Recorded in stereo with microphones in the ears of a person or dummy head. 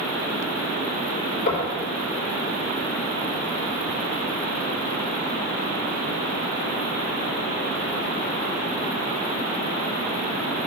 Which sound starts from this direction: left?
Knocking, at 1.5 s.